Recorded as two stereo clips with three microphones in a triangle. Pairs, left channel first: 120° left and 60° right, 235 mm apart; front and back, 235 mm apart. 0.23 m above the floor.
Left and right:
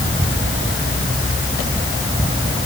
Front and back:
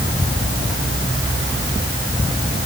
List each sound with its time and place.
Only background noise.